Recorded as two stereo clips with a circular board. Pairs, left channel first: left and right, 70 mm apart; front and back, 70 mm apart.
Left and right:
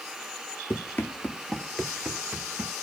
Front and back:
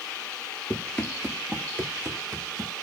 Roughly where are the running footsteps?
Ahead left.